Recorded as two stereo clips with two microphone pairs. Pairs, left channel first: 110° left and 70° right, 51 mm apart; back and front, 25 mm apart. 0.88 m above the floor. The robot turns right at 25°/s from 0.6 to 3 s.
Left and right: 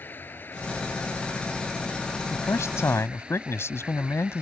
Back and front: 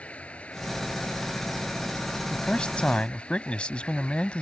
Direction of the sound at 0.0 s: 160° left.